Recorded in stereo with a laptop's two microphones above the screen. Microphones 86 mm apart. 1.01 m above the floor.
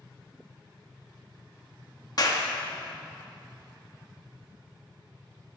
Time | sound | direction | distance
2.2 | a clap | 45° left (ahead or behind) | 1.0 m